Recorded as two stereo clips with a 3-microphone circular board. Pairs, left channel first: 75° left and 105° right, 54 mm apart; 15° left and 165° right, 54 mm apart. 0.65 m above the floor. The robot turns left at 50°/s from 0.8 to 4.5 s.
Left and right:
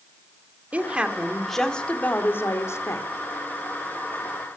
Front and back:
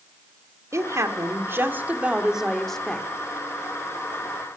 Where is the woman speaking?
165° right, 2.0 m; by 3.0 s 80° left, 2.0 m.